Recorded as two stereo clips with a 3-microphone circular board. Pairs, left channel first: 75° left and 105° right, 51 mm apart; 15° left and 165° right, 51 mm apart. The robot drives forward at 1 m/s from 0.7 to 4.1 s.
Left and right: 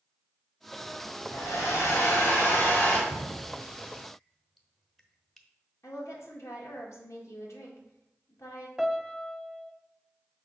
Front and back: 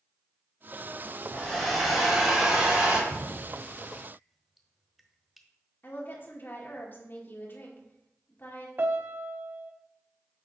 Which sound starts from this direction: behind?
A piano, at 8.8 s.